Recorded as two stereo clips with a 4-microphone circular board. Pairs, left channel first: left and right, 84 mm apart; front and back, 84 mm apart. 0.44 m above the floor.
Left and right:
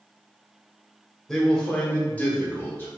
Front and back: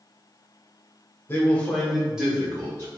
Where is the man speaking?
10° left, 1.1 m; by 2.9 s 140° left, 1.3 m.